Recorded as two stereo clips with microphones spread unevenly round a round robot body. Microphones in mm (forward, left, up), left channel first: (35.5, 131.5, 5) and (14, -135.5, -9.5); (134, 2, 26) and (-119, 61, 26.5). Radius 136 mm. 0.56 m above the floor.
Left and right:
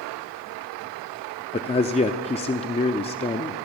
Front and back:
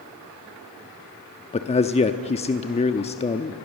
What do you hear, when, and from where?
1.5 s a man speaking: 30° left, 0.7 m